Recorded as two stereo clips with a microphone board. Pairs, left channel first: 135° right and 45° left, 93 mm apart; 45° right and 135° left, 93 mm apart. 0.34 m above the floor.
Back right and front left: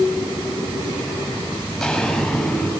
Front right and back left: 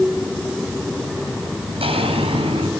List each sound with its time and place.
1.7 s footsteps: 135° left, 8 m; by 2.7 s 140° left, 7 m